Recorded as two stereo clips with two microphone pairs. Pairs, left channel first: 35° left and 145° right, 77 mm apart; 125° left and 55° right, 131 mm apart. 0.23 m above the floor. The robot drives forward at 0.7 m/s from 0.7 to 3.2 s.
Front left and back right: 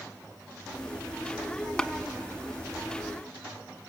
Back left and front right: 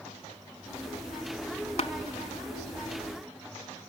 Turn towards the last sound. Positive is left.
turn(degrees=150)